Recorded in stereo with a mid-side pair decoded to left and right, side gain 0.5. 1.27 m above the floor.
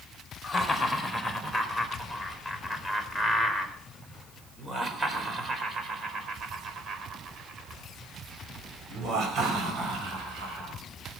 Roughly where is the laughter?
Ahead.